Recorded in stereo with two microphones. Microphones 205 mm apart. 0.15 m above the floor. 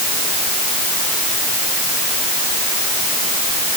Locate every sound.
Only background noise.